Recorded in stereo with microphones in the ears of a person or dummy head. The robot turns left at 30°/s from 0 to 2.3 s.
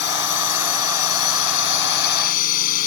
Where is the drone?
120° left; by 2.9 s 50° left.